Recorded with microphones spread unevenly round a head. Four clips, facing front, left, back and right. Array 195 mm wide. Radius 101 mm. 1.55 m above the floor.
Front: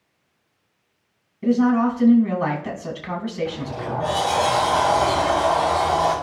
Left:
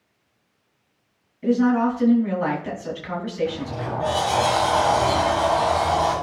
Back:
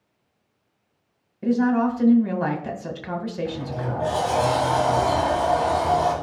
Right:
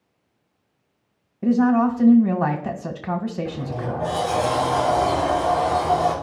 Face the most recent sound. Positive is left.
turn(degrees=-135)